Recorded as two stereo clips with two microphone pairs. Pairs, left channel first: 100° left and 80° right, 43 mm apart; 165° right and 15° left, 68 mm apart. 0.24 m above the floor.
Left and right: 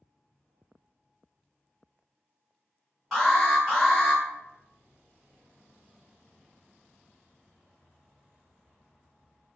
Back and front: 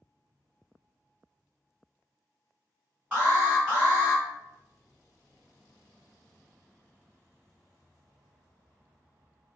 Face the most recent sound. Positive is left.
turn(degrees=5)